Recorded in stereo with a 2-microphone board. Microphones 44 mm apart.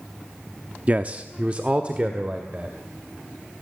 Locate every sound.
0.9 s a man speaking: 30° right (ahead or behind), 0.7 m; by 2.8 s 25° right (ahead or behind), 2 m